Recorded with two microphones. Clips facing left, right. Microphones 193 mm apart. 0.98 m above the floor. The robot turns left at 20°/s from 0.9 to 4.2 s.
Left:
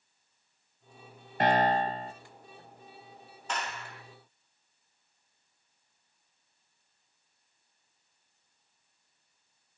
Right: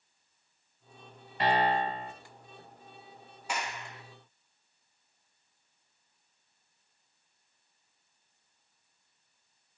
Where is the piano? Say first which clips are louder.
Left 2 dB; 50° left (ahead or behind), 2 m; by 2.1 s 35° left (ahead or behind), 2 m.